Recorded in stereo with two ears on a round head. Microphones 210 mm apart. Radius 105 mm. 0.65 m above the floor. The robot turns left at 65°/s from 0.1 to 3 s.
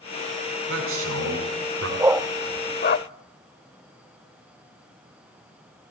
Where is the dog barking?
15° right (ahead or behind), 0.7 m; by 3.0 s 45° left (ahead or behind), 0.7 m.